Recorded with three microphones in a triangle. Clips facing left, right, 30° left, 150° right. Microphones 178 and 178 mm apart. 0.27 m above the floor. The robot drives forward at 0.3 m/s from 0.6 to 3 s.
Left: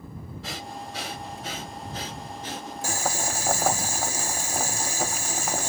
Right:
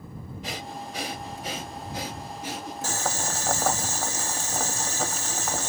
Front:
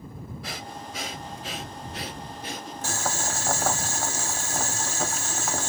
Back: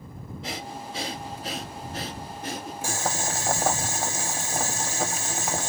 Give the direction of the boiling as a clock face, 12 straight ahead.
7 o'clock.